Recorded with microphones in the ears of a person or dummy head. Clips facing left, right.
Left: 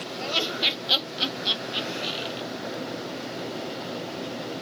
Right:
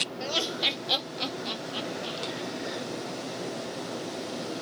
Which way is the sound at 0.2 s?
10° right (ahead or behind).